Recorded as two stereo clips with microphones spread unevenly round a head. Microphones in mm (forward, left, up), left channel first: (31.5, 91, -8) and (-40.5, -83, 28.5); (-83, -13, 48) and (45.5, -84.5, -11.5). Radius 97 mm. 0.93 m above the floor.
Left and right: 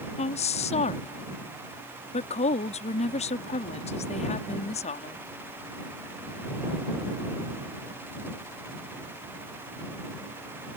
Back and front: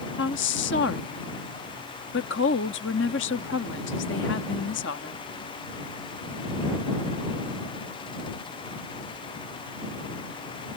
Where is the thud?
No thud in this recording.